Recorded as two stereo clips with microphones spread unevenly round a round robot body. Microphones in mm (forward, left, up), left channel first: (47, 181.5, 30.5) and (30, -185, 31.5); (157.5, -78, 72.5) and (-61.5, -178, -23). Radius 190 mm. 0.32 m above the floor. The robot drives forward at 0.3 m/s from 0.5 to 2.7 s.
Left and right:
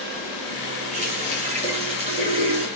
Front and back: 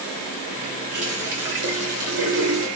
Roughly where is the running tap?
Behind.